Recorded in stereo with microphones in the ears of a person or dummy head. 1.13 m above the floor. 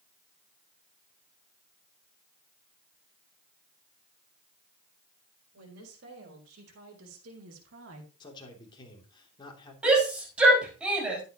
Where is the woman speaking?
80° right, 5 m; by 8.1 s 85° right, 2.5 m.